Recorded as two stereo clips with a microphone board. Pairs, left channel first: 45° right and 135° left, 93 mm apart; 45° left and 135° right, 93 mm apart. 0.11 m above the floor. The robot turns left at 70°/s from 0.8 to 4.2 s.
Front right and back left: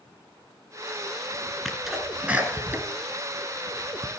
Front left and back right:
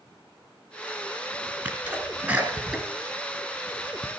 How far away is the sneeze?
About 1.7 m.